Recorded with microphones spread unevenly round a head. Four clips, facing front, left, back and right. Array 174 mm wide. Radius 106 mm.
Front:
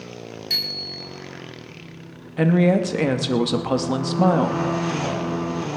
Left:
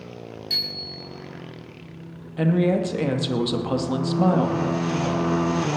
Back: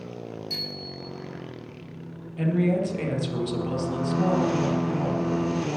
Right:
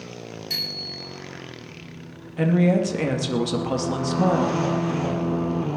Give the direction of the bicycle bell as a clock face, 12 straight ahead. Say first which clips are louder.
Even, front 1 dB; 12 o'clock.